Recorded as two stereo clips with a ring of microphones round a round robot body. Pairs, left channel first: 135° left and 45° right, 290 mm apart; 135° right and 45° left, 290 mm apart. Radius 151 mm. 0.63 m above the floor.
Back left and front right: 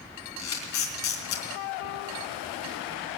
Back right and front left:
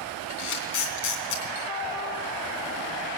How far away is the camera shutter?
About 3 m.